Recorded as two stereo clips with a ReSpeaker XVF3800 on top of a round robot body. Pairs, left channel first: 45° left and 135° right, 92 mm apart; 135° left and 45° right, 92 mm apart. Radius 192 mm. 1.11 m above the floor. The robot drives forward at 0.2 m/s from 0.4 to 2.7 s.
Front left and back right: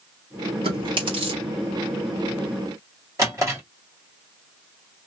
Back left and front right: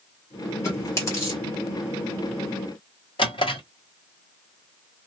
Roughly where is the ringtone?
I don't hear a ringtone.